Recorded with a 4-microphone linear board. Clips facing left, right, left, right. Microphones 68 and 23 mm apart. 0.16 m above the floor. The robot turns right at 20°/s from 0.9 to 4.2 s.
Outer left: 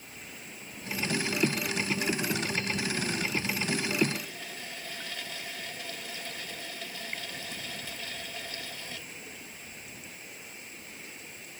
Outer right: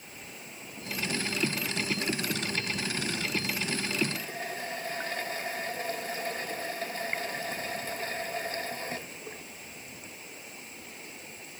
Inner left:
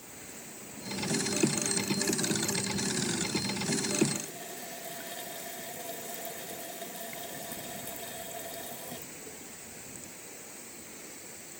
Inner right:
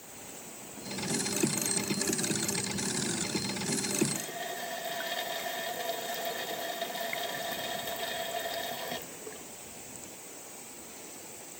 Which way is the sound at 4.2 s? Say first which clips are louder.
Outer right 4 dB, inner right 4 dB; 35° right (ahead or behind).